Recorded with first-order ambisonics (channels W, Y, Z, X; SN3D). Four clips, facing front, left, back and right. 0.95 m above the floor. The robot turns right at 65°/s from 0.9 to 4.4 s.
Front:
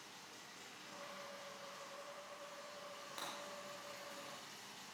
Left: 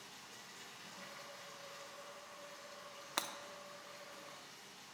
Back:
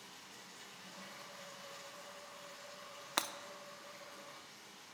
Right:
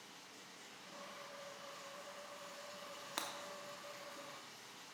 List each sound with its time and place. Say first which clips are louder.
0.0 s running water: left 2 dB, back 1 dB; 130° left, 5.5 m; by 5.0 s straight ahead, 5.5 m
3.2 s breaking glass: left 4 dB, back 11 dB; 160° left, 0.6 m; by 3.3 s 170° left, 0.6 m